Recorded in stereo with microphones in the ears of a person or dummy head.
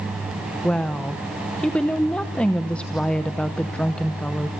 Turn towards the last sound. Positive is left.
turn(degrees=5)  # may be behind; listen again after turning